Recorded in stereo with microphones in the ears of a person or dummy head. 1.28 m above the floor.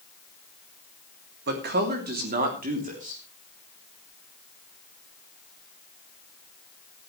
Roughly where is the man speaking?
Right.